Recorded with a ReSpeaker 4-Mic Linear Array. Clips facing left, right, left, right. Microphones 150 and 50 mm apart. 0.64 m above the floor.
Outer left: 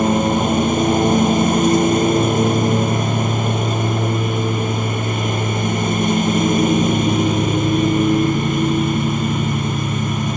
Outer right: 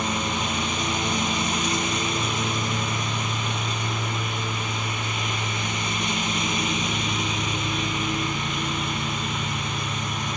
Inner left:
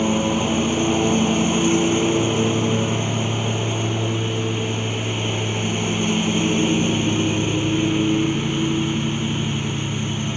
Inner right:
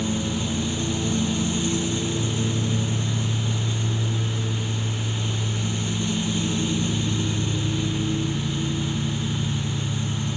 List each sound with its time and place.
0.0 s a lawn mower: 50° left (ahead or behind)